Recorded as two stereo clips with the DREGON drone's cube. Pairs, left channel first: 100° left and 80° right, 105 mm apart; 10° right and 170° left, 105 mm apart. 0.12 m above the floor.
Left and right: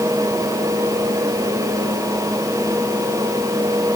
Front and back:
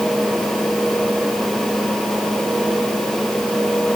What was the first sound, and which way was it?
Only background noise.